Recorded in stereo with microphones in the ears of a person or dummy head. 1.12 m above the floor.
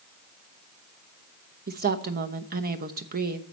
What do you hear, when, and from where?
1.7 s a woman speaking: 45° right (ahead or behind), 0.9 m